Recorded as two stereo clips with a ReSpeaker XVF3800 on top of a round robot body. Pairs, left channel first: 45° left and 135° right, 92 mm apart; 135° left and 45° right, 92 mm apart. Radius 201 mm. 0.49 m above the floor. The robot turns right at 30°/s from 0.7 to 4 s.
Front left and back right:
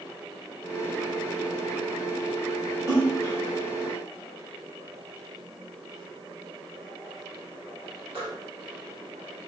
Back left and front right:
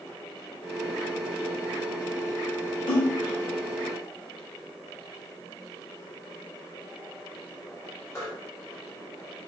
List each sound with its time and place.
2.9 s a splash: 165° left, 1.7 m; by 8.3 s 160° right, 1.7 m